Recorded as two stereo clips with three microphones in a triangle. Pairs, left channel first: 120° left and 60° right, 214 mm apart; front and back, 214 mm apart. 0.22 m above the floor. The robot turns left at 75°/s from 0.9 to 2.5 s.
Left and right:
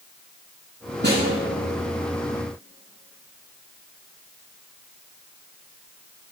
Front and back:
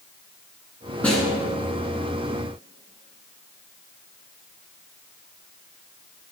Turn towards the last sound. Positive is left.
turn(degrees=170)